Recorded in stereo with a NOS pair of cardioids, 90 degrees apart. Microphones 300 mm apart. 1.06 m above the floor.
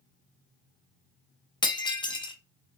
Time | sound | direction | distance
1.6 | breaking glass | 15° left | 0.9 m